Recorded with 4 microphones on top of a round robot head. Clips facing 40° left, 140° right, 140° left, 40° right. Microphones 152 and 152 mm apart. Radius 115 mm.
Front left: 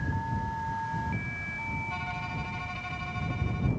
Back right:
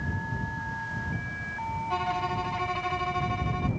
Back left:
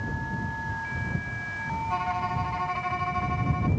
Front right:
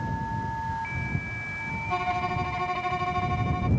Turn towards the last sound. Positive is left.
turn(degrees=-105)